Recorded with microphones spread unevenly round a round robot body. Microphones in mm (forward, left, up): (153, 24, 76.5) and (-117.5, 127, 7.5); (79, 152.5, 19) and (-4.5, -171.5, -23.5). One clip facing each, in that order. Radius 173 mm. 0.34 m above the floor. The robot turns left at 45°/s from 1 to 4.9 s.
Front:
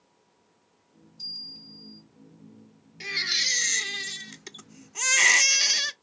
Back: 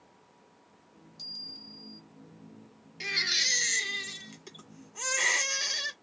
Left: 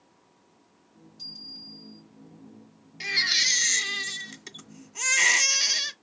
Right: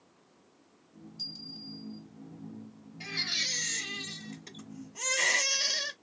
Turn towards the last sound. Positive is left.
turn(degrees=15)